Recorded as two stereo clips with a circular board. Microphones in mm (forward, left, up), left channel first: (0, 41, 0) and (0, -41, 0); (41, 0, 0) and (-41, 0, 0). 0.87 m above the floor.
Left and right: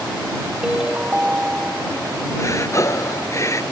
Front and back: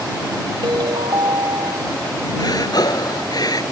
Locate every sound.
0.6 s a ringtone: 170° right
2.4 s breathing: 35° left